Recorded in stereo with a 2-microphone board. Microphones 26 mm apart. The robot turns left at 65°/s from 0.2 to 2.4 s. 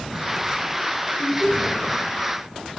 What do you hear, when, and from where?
1.2 s laughter: 170° right, 3 m; by 1.8 s 150° left, 3 m